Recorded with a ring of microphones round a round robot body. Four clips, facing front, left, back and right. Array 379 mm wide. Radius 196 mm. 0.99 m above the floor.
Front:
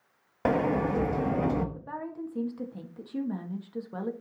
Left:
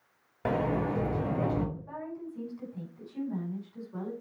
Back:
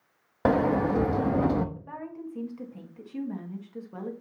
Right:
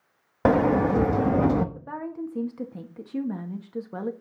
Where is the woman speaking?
80° right, 1.7 m.